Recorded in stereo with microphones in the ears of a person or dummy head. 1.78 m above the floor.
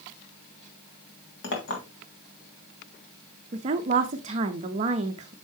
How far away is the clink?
About 2 m.